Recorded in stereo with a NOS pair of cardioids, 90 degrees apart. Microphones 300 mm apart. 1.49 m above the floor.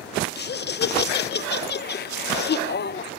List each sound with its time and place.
0.3 s laughter: 35° left, 1.3 m